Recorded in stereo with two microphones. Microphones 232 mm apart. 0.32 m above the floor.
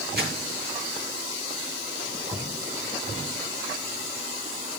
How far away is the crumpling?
About 6.5 m.